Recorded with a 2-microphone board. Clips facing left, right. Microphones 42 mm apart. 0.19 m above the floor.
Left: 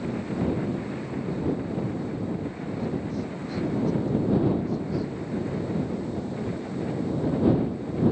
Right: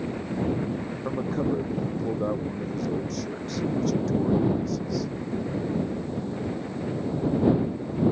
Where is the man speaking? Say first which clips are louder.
Right 3 dB; 80° right.